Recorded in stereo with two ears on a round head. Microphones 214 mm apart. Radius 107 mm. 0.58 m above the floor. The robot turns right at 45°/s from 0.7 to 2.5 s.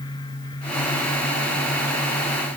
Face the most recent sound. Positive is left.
No sound to turn to.